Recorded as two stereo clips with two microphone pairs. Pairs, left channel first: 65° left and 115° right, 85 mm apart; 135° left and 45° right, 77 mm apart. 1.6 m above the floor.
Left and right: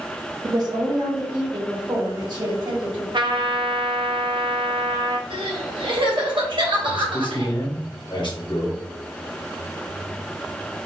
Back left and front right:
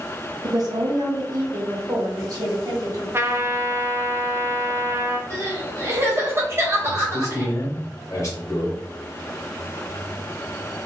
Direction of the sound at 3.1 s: 100° right.